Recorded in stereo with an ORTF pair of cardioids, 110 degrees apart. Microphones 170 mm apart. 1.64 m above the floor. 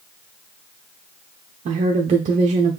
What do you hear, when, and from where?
1.6 s a woman speaking: 45° right, 0.8 m